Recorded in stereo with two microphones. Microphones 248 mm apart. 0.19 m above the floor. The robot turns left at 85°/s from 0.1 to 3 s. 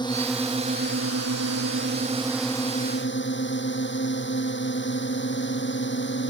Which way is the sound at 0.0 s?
20° left.